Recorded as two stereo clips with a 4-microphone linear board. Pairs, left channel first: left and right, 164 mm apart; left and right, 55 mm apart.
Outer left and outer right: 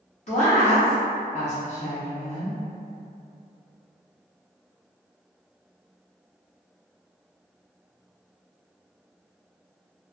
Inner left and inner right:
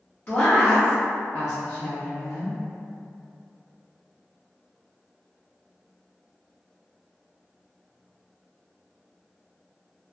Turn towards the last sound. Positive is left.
turn(degrees=45)  # may be behind; listen again after turning